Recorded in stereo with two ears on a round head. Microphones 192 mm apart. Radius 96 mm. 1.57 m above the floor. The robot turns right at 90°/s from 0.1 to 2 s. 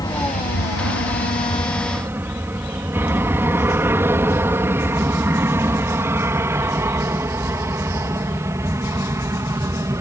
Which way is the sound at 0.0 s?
20° left (ahead or behind).